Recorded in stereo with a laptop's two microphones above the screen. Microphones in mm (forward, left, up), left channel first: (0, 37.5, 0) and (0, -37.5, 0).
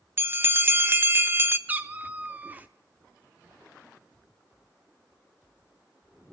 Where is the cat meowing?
25° right (ahead or behind), 0.5 m.